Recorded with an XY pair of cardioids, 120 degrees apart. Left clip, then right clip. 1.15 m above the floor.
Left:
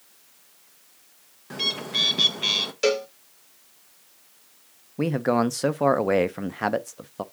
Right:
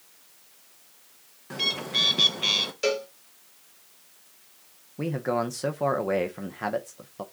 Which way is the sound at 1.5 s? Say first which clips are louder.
Even; 5° left.